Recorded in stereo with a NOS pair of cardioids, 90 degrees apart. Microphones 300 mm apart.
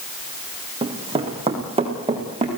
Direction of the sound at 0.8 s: 20° right.